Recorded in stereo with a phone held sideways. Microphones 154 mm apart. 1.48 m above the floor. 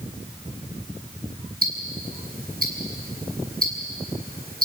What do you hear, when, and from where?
1.6 s ticking: 75° right (ahead or behind), 7 m